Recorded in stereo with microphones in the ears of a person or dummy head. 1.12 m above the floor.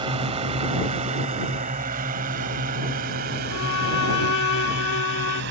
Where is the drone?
25° right (ahead or behind); by 5.5 s 60° right (ahead or behind).